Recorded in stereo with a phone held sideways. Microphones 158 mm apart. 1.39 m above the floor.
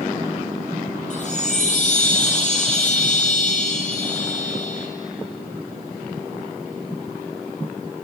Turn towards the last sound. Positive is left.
turn(degrees=50)  # may be behind; listen again after turning